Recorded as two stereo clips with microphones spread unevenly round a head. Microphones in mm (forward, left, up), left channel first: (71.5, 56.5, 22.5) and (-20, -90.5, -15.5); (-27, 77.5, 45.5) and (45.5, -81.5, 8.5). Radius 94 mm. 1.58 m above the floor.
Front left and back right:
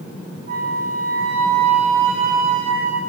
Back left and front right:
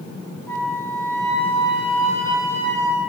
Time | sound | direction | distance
0.5 | a flute | 170° right | 2.5 m